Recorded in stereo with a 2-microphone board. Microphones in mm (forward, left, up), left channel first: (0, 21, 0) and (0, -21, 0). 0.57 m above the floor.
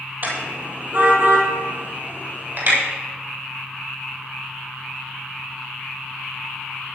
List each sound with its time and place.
0.2 s a car horn: 45° right (ahead or behind), 7 m; by 2.8 s 55° right (ahead or behind), 10 m